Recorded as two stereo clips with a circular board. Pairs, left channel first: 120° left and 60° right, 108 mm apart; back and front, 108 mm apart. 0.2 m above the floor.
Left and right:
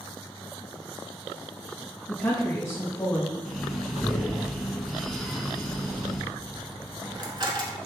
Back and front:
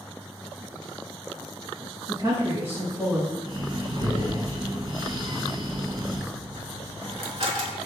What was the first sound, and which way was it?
A woman speaking, 55° left.